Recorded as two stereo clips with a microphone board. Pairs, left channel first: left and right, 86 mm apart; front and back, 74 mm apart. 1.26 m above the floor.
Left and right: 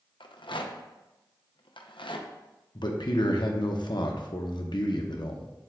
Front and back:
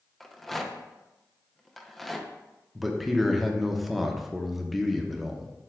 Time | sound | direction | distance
0.2 | a rattle | 85° left | 0.7 m
2.8 | a man speaking | 90° left | 0.8 m